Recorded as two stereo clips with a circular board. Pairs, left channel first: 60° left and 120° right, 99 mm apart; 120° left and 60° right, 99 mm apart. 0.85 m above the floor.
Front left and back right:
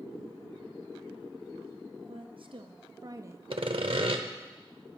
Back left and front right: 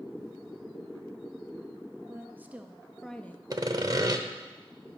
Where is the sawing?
105° right, 0.9 m.